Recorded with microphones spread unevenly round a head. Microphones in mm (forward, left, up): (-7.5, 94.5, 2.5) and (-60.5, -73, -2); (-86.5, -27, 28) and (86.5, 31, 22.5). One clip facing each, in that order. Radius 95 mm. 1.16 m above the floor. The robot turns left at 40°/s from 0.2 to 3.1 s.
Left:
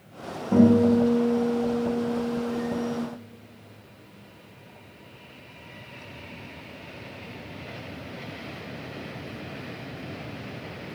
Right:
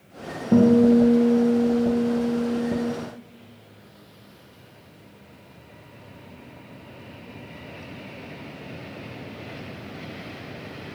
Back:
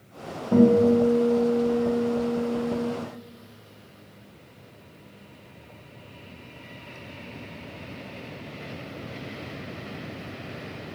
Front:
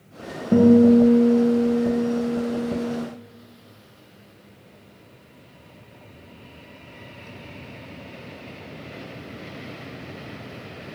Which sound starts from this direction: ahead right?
A guitar, at 0.5 s.